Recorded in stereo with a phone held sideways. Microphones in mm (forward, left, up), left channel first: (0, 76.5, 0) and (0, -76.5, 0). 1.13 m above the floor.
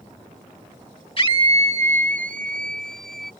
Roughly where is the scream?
Left.